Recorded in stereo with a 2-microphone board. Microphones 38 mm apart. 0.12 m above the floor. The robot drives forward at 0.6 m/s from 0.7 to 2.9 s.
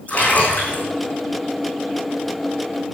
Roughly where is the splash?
Left.